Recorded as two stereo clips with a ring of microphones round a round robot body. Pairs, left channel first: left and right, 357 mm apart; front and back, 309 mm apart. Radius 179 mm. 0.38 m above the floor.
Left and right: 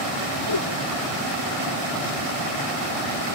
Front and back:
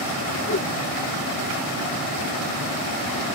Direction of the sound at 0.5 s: 50° left.